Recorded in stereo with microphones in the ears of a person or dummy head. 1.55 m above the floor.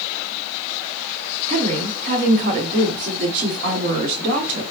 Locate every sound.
1.5 s a woman speaking: 40° right (ahead or behind), 1.1 m